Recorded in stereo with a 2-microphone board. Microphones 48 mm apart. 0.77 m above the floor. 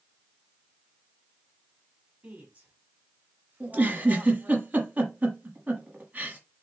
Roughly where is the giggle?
Right.